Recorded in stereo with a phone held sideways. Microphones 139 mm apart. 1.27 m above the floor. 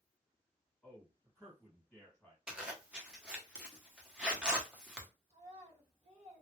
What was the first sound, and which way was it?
A man speaking, 5° left (ahead or behind).